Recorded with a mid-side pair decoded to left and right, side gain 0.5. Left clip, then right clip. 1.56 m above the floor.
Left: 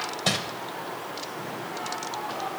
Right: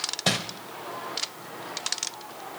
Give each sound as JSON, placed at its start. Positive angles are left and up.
{"t": 0.3, "sound": "crumpling", "azimuth_deg": -10, "distance_m": 1.1}